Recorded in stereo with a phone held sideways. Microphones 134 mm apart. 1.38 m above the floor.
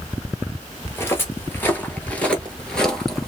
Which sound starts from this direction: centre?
Footsteps, at 0.8 s.